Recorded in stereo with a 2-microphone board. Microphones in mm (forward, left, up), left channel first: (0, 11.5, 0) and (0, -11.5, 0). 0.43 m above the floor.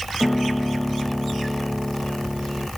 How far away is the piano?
About 1.8 m.